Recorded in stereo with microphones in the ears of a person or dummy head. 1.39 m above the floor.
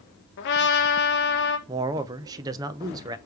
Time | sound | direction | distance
0.4 | a trumpet | 55° left (ahead or behind) | 1.7 m
1.7 | a man speaking | 25° right (ahead or behind) | 0.7 m